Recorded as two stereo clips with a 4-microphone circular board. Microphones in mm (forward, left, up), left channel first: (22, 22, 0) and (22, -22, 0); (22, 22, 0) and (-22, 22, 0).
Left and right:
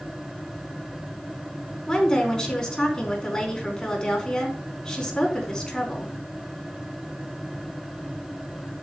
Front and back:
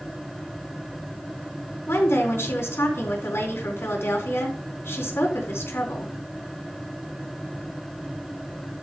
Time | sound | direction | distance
1.9 | a woman speaking | 20° left | 4.5 m